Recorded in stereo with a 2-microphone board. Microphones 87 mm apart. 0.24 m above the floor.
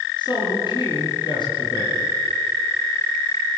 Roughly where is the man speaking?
Left.